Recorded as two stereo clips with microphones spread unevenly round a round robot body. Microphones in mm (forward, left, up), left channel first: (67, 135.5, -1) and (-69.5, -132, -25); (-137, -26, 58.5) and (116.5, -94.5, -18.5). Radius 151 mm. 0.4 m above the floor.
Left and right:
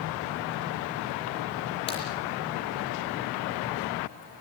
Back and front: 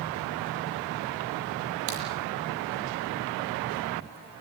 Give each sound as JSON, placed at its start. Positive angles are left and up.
{"t": 1.9, "sound": "a crack", "azimuth_deg": -10, "distance_m": 8.5}